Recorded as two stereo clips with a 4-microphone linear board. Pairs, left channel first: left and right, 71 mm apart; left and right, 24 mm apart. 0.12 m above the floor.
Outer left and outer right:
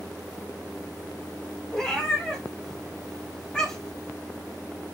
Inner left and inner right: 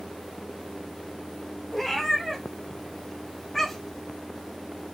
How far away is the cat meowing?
About 2.0 m.